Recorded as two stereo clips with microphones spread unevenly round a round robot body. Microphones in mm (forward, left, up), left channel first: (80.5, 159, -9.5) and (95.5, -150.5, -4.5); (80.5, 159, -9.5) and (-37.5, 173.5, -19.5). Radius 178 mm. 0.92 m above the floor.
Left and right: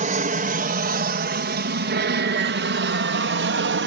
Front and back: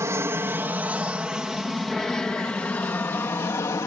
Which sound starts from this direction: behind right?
An aircraft, at 0.0 s.